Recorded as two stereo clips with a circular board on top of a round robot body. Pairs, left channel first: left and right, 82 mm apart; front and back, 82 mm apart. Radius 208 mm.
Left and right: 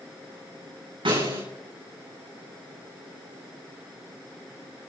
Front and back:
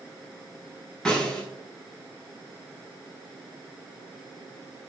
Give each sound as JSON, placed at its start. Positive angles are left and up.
{"t": 1.1, "sound": "a snare drum", "azimuth_deg": -80, "distance_m": 9.0}